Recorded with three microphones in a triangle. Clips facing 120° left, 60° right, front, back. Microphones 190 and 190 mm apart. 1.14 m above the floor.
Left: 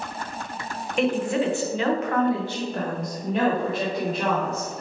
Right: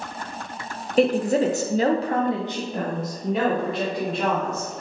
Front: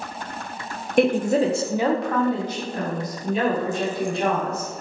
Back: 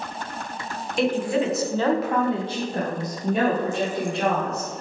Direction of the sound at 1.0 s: 15° right.